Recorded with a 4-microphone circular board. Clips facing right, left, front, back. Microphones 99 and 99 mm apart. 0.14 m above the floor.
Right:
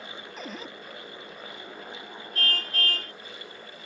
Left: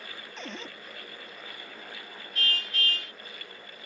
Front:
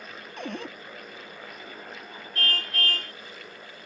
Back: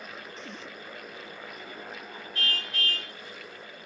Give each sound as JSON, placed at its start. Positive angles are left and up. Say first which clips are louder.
{"t": 0.4, "sound": "a cupboard door", "louder": "right 1 dB, front 7 dB", "azimuth_deg": -5}
{"t": 2.4, "sound": "a car horn", "louder": "right 2 dB, front 4 dB", "azimuth_deg": -40}